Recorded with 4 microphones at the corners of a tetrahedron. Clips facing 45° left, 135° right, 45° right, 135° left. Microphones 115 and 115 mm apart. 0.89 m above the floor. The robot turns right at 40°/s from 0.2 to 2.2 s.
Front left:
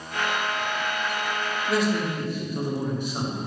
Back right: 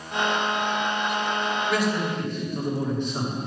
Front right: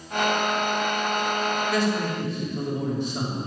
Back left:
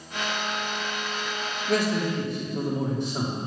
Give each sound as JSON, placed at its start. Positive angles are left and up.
{"t": 1.7, "sound": "a man speaking", "azimuth_deg": 105, "distance_m": 2.0}